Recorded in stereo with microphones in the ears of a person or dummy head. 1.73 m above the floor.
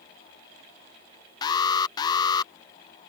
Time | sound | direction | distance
1.4 | an alarm | 25° left (ahead or behind) | ?